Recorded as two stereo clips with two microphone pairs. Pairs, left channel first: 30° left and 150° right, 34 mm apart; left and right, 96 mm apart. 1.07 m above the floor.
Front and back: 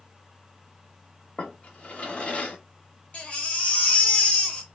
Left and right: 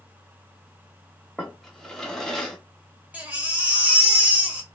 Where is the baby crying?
15° right, 1.0 m.